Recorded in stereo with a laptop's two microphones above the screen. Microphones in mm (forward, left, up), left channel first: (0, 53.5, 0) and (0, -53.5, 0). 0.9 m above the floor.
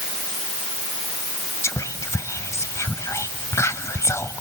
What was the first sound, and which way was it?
Whispering, 25° left (ahead or behind).